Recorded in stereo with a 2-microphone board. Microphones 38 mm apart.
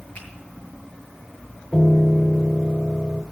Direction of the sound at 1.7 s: 20° left (ahead or behind).